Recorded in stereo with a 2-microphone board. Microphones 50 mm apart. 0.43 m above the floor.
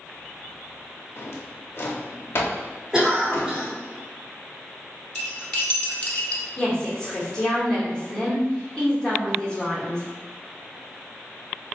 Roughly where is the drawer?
Left.